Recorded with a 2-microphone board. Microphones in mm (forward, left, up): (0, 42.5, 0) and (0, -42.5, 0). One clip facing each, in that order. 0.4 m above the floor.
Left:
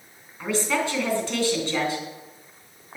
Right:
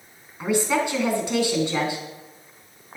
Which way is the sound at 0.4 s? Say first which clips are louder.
Right 3 dB; 15° right (ahead or behind).